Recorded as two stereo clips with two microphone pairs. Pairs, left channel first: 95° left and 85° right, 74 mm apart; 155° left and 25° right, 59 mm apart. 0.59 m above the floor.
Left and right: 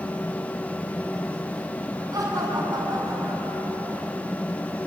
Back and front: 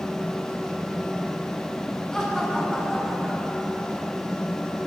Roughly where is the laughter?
Behind right.